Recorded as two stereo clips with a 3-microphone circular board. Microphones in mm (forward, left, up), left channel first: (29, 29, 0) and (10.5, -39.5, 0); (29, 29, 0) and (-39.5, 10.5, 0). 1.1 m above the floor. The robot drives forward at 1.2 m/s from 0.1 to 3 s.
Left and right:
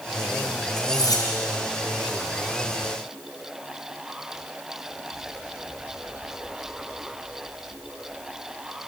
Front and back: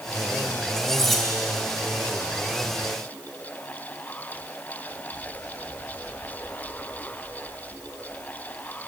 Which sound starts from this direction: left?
Cutlery clinking, at 0.8 s.